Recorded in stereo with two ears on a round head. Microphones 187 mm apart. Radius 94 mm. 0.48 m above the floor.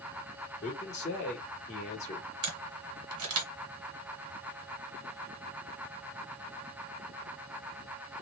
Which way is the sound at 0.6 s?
35° left (ahead or behind).